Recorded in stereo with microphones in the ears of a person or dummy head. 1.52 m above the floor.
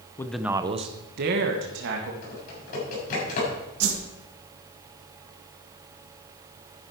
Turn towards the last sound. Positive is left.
turn(degrees=-75)  # may be behind; listen again after turning